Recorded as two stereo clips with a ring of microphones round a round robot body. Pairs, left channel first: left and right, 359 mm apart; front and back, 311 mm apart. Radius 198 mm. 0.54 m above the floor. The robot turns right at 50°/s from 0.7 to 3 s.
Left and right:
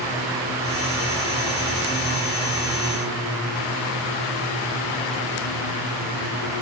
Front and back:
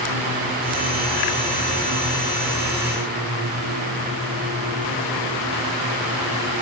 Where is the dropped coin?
I don't hear a dropped coin.